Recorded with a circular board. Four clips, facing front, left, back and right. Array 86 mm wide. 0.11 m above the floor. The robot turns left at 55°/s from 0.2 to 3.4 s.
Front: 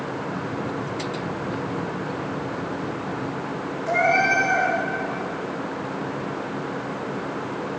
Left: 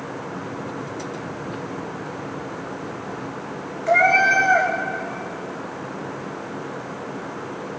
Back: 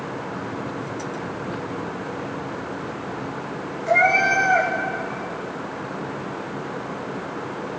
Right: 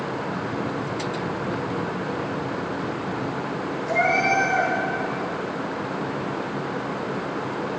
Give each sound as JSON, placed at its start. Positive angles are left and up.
{"t": 3.9, "sound": "a cat meowing", "azimuth_deg": 100, "distance_m": 6.0}